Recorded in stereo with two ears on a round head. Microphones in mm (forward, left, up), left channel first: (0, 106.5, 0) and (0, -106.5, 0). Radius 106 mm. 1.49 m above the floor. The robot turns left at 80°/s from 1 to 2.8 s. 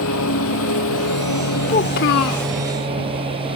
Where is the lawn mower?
65° left (ahead or behind); by 3.6 s 25° right (ahead or behind).